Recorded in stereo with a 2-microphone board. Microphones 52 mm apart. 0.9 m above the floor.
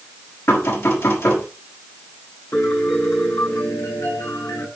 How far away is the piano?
About 4.5 m.